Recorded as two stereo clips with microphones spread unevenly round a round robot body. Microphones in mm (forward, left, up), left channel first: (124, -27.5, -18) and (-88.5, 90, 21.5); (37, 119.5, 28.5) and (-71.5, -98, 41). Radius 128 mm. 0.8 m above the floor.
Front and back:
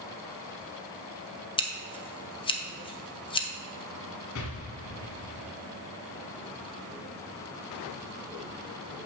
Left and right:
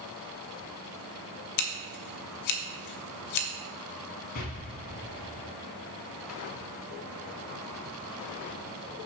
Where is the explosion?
5° left, 1.6 m.